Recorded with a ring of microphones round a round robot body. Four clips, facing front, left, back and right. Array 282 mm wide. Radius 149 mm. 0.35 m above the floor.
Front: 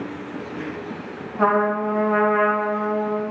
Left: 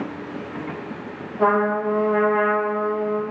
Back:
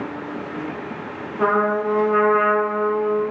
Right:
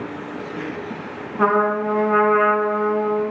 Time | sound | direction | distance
1.4 | a trumpet | 80° right | 0.9 m